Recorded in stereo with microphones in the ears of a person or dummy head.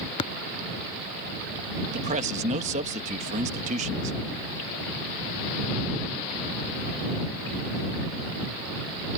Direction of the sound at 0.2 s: 25° left (ahead or behind).